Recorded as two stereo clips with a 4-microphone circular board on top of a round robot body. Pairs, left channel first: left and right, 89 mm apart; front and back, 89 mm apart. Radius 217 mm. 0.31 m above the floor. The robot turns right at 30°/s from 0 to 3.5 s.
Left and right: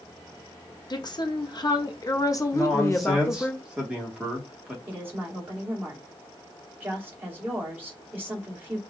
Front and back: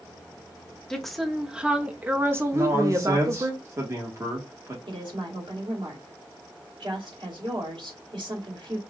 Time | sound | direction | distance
0.9 | a woman speaking | 80° left | 1.2 m
2.5 | a man speaking | 165° left | 1.7 m
4.9 | a woman speaking | 155° right | 2.5 m